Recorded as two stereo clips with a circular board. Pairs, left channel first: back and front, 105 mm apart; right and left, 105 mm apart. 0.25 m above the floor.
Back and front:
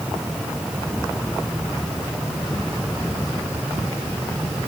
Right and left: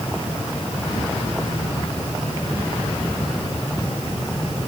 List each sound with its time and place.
Only background noise.